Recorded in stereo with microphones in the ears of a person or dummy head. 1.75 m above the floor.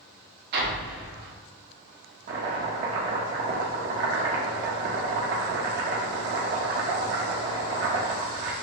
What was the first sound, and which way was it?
An explosion, 60° right (ahead or behind).